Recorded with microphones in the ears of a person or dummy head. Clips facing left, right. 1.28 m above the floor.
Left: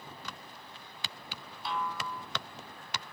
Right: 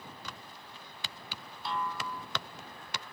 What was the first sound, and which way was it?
A snare drum, centre (ahead or behind).